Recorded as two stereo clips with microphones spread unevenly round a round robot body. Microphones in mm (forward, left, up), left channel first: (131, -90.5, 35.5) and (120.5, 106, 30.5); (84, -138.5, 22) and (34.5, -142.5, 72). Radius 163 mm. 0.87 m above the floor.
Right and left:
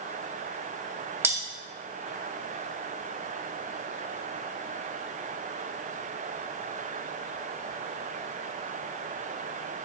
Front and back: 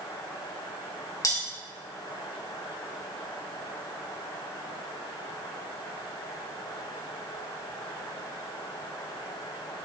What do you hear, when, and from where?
1.2 s cutlery clinking: 15° left, 1.7 m